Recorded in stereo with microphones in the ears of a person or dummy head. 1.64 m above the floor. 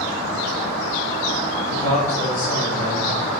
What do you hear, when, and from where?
1.7 s a man speaking: 80° left, 1.1 m; by 3.1 s 85° left, 1.9 m